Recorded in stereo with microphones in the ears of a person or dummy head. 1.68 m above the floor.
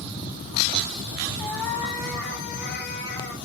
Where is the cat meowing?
10° left (ahead or behind), 1.7 m.